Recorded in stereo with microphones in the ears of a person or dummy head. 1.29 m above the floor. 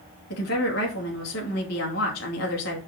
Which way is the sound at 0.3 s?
60° left (ahead or behind).